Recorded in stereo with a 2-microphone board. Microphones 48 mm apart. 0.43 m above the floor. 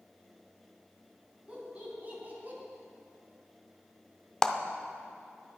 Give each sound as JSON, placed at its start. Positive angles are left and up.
{"t": 1.5, "sound": "laughter", "side_deg": -25, "distance_m": 3.5}
{"t": 4.4, "sound": "a clap", "side_deg": 10, "distance_m": 0.6}